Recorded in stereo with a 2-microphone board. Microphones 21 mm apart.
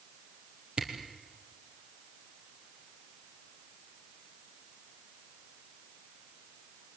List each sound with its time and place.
0.8 s a camera shutter: 55° right (ahead or behind), 4 m